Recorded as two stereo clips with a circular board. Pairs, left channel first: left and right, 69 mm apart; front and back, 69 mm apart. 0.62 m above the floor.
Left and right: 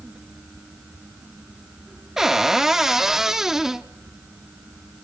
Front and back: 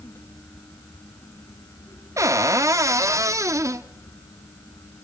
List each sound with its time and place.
2.2 s a cupboard door: 170° right, 1.0 m